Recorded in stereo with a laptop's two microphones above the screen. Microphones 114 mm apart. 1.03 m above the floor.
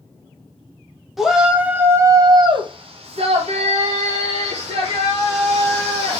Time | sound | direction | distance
1.2 | a shout | 5° right (ahead or behind) | 1.0 m